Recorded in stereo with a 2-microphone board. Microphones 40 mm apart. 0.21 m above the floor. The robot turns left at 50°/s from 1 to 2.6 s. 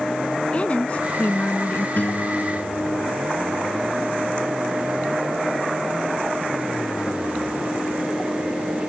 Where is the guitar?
125° left; by 3.3 s 90° left.